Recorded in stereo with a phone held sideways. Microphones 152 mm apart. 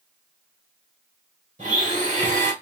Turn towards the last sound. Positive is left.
turn(degrees=-55)  # may be behind; listen again after turning